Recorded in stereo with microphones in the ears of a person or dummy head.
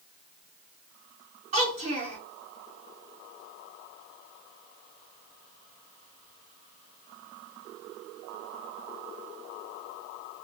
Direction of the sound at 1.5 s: 45° right (ahead or behind).